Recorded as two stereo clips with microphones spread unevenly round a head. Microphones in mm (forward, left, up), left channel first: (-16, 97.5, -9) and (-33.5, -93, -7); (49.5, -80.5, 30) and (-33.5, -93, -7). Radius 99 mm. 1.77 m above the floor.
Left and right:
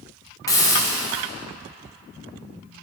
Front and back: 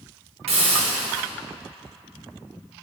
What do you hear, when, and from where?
0.5 s a hiss: 160° left, 0.6 m